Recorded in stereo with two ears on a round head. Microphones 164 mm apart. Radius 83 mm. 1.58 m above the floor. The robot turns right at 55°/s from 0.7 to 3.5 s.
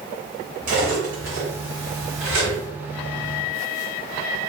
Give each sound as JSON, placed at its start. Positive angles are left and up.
{"t": 0.7, "sound": "cutlery clinking", "side_deg": -45, "distance_m": 1.9}